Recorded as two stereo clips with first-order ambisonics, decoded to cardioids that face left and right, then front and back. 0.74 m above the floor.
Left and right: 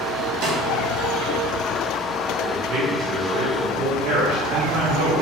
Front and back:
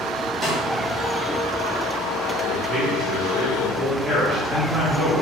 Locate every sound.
0.4 s a snare drum: 110° right, 0.8 m
2.4 s a man speaking: 100° right, 1.0 m